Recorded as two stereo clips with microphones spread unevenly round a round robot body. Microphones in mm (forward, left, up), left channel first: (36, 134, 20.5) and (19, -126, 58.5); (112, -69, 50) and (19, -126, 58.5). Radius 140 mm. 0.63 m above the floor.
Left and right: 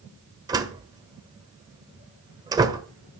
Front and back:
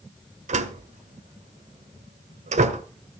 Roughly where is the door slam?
Behind.